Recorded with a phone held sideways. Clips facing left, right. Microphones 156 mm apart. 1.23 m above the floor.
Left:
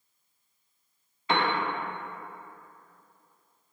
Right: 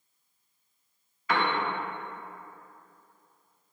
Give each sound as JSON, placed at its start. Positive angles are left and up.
{"t": 1.3, "sound": "a piano", "side_deg": 25, "distance_m": 0.5}